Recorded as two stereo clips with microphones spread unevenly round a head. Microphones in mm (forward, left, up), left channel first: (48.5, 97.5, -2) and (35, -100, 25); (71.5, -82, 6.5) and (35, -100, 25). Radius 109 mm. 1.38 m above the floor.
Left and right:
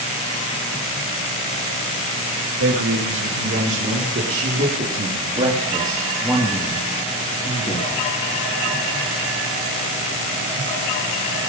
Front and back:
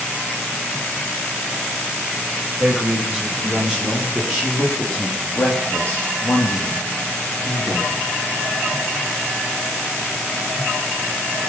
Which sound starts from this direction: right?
A man speaking, at 2.6 s.